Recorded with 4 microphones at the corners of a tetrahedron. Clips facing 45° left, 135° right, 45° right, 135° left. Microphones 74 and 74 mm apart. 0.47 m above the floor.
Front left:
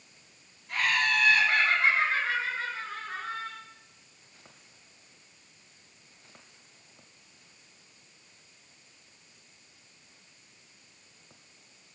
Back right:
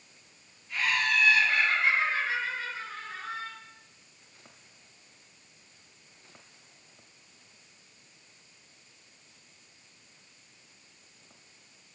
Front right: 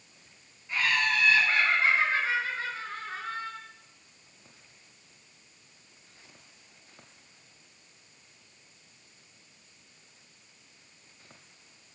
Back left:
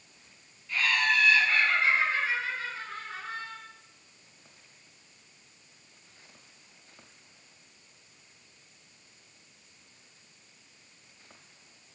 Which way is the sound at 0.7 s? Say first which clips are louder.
Front left 1 dB, back left 1 dB; 20° left.